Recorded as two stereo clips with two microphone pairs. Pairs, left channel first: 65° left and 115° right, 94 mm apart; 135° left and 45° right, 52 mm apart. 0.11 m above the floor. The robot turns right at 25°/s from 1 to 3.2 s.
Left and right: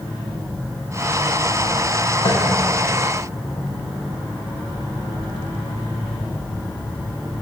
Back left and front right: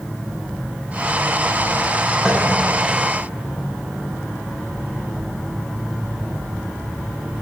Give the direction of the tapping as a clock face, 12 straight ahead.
11 o'clock.